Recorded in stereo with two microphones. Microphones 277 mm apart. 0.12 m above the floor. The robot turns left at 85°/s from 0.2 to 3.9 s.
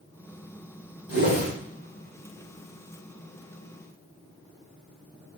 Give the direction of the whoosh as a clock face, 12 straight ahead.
3 o'clock.